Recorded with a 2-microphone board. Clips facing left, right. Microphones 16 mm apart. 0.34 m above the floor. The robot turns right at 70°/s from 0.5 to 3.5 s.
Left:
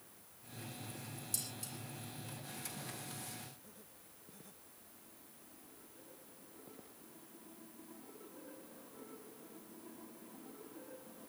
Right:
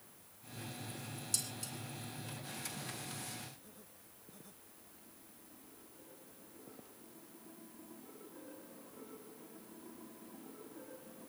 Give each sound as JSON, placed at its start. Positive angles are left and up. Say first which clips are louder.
{"t": 1.3, "sound": "dishes clattering", "louder": "right 4 dB", "side_deg": -35, "distance_m": 3.5}